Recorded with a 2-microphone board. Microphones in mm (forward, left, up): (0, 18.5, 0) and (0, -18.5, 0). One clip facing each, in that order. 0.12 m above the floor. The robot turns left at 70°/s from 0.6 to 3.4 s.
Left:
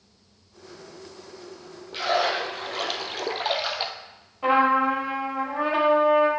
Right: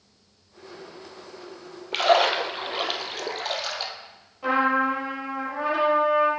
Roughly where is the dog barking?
I don't hear a dog barking.